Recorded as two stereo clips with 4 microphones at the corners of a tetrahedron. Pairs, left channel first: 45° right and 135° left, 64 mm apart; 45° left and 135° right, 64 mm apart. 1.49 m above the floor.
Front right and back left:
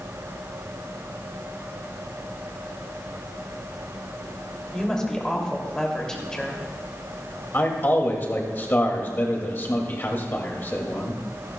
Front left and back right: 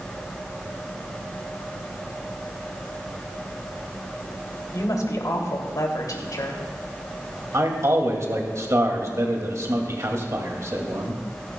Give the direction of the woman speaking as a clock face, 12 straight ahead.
11 o'clock.